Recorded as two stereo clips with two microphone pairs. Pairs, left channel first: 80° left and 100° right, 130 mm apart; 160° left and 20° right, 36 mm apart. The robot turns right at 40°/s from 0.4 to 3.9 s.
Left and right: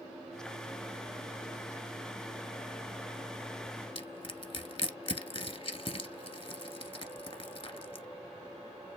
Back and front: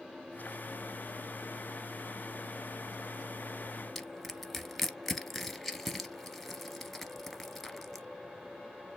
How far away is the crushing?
About 0.8 m.